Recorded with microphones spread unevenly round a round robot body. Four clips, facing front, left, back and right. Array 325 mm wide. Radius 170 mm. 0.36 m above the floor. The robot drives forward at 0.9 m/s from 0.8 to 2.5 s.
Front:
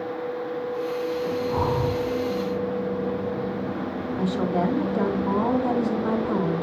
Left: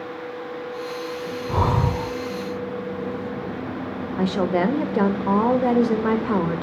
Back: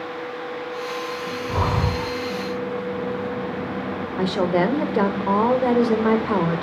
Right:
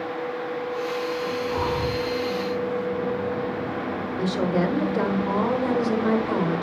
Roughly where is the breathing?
Left.